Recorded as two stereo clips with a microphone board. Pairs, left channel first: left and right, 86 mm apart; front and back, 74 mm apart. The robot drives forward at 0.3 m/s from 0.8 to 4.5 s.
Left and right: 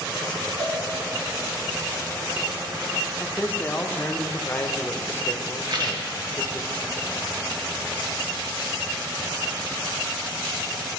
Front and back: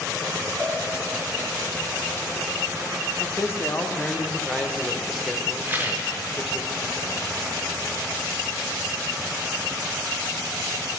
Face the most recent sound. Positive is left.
turn(degrees=-115)